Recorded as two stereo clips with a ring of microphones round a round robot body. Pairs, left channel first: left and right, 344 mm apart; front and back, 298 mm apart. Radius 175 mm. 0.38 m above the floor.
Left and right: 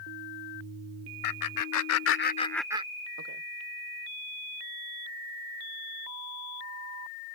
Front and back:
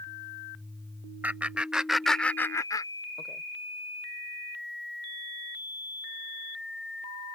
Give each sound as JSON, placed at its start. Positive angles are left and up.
{"t": 1.2, "sound": "laughter", "azimuth_deg": 95}